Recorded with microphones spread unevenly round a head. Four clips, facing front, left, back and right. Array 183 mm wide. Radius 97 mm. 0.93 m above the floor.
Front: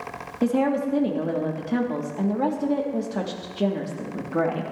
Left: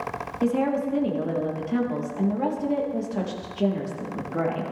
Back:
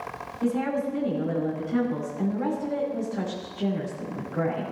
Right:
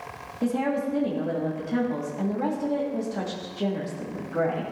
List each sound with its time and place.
0.4 s a woman speaking: 10° left, 2 m